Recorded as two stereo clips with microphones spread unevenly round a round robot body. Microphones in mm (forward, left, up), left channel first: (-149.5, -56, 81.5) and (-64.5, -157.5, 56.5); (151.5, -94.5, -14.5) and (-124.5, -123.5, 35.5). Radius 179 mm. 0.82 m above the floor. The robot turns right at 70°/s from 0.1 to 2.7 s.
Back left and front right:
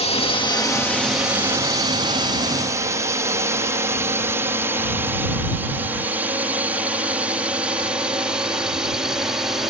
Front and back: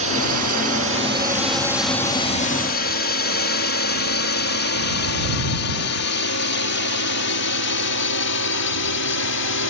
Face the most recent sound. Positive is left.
turn(degrees=30)